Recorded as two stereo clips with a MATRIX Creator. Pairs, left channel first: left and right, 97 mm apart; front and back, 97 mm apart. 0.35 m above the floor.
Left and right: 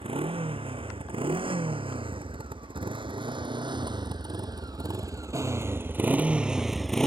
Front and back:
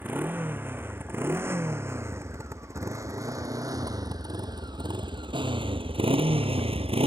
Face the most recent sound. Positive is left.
turn(degrees=175)